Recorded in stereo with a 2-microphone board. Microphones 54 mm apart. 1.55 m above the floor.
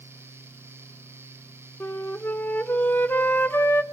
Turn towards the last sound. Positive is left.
turn(degrees=40)  # may be behind; listen again after turning